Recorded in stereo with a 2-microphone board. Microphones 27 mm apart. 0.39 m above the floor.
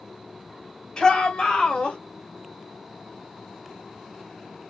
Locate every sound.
1.0 s a shout: 30° left (ahead or behind), 2.0 m; by 2.0 s 50° left (ahead or behind), 2 m